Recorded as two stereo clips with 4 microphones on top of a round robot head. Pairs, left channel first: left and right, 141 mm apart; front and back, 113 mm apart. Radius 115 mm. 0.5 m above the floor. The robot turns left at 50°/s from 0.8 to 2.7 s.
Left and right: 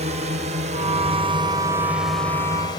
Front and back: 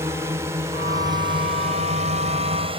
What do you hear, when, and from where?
0.0 s a drone: 115° right; by 2.8 s 150° left